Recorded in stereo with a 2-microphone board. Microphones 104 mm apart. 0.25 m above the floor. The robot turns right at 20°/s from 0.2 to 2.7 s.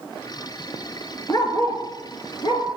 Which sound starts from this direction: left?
A dog barking, at 1.3 s.